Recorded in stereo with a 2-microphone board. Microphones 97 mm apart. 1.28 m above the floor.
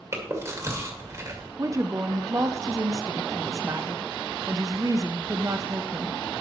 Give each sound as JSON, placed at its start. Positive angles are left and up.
{"t": 0.1, "sound": "chewing", "side_deg": -30, "distance_m": 2.0}
{"t": 1.6, "sound": "a woman speaking", "side_deg": -30, "distance_m": 0.6}